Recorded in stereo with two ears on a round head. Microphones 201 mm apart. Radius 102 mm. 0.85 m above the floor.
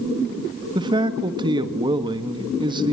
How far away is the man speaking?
About 1.6 m.